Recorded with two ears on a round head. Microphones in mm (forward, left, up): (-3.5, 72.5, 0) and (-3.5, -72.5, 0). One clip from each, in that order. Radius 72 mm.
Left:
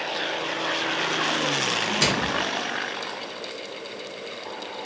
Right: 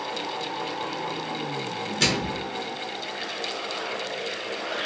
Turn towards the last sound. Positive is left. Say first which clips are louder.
# right 2 dB
turn(degrees=5)  # may be behind; listen again after turning